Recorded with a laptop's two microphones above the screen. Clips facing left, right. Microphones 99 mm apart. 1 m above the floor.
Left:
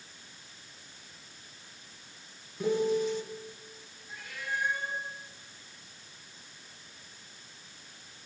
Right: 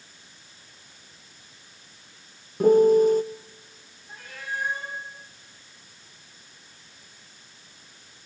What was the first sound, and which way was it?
A piano, 45° right (ahead or behind).